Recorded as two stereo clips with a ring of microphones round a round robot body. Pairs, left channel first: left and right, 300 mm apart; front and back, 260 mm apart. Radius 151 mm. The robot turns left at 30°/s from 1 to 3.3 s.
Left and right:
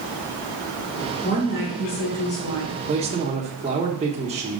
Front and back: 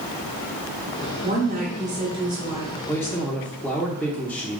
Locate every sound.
1.2 s a woman speaking: 145° left, 1.9 m; by 2.8 s 100° left, 1.9 m
2.9 s a man speaking: 65° right, 0.8 m; by 4.6 s 75° right, 0.8 m